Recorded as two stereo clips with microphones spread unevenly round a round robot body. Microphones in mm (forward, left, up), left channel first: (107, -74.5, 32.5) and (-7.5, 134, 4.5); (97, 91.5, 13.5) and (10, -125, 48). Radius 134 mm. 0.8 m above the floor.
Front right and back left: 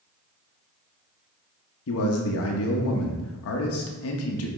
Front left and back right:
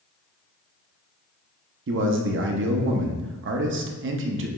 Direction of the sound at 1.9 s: 80° right.